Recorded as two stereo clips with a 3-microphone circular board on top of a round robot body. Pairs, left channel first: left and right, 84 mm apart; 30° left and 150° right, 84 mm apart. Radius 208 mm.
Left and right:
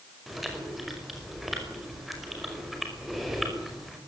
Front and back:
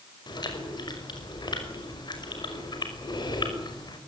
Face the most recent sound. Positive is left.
turn(degrees=0)